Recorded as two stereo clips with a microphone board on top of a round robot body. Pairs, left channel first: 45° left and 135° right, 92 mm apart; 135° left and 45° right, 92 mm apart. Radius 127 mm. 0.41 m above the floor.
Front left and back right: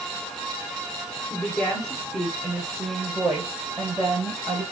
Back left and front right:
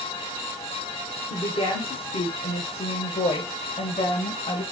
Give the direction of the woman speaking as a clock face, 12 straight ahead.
8 o'clock.